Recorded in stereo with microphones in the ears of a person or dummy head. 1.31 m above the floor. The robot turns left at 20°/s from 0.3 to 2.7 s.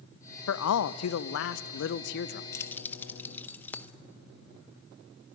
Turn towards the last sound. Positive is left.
turn(degrees=15)  # may be behind; listen again after turning